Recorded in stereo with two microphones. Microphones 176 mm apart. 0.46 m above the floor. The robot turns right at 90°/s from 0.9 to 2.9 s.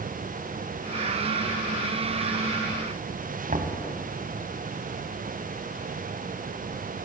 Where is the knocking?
50° right (ahead or behind), 2 m.